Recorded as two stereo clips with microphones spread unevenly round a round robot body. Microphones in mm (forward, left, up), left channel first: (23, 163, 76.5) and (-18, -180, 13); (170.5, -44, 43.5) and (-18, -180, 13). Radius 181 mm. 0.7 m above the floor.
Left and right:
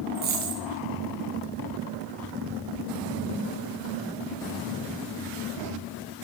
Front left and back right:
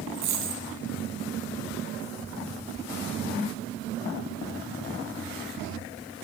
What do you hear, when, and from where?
0.1 s a dropped coin: 165° right, 2.5 m